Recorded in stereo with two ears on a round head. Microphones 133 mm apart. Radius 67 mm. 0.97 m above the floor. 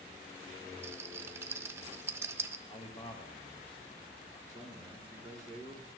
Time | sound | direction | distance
0.8 | a rattle | 15° right (ahead or behind) | 0.5 m
2.7 | a man speaking | 35° left (ahead or behind) | 0.9 m
4.5 | a man speaking | 25° left (ahead or behind) | 4 m